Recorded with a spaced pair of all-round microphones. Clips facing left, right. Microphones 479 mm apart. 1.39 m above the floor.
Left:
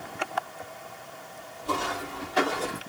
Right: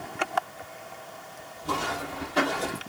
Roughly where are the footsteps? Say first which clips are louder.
Even; right.